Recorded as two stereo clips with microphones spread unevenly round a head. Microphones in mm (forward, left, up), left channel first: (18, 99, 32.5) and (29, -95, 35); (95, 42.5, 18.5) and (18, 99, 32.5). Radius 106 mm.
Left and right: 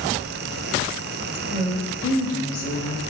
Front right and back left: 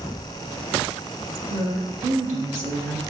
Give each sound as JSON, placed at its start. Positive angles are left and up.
{"t": 1.5, "sound": "a woman speaking", "azimuth_deg": 145, "distance_m": 1.1}